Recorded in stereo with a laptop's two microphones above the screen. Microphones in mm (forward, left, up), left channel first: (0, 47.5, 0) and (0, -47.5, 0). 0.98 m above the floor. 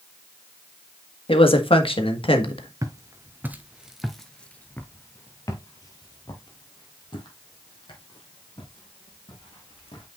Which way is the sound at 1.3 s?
70° left (ahead or behind).